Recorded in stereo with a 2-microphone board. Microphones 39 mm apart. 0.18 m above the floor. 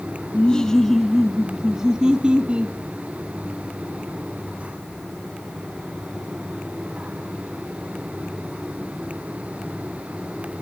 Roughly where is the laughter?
Left.